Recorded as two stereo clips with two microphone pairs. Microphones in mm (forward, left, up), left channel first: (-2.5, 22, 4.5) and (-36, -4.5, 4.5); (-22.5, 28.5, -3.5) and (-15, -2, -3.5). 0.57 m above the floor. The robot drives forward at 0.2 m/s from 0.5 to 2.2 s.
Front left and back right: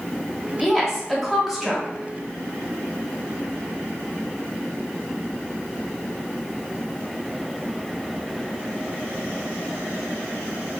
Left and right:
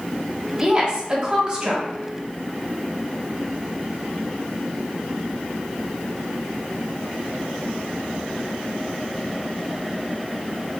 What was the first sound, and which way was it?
A woman speaking, 40° right.